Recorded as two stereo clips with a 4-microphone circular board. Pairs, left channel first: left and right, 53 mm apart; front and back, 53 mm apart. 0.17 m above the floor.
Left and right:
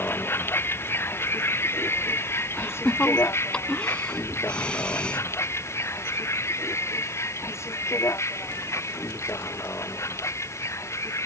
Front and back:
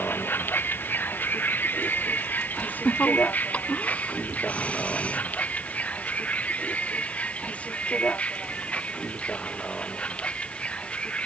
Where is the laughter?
35° left.